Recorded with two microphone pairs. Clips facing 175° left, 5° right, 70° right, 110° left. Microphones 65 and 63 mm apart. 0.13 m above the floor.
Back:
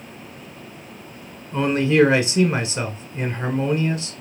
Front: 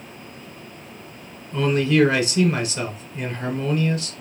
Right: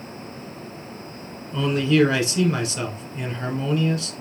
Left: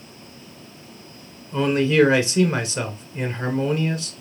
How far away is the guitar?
No guitar in this recording.